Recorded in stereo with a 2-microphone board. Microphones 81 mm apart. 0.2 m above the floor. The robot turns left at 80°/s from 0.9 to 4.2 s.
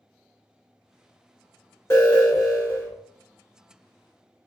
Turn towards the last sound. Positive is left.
turn(degrees=-145)